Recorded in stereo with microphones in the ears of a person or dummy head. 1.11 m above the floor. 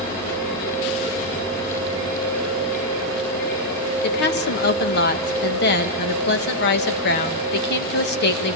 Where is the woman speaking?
50° left (ahead or behind), 1.2 m.